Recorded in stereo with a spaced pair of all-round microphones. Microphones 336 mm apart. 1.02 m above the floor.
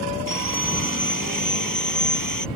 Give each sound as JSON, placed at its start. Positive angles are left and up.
{"t": 0.3, "sound": "sawing", "side_deg": -70}